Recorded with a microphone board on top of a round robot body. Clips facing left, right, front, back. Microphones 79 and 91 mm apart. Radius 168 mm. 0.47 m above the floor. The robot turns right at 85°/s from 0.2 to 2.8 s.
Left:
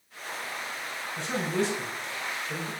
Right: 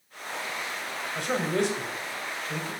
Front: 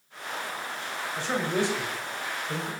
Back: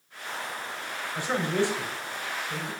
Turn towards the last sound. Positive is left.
turn(degrees=30)